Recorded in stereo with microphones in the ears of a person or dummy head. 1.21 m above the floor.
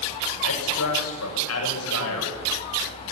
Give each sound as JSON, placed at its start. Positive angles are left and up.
{"t": 0.4, "sound": "a man speaking", "side_deg": 85, "distance_m": 7.5}